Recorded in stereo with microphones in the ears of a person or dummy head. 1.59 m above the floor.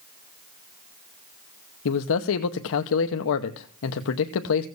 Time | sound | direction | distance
1.9 | a man speaking | 70° left (ahead or behind) | 0.9 m